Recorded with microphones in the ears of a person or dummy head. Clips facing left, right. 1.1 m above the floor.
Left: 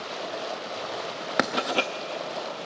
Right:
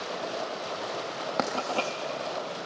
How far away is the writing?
About 0.5 m.